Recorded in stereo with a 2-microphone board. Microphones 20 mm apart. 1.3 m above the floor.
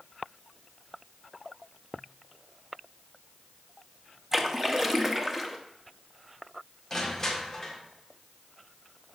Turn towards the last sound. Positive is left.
turn(degrees=15)  # may be behind; listen again after turning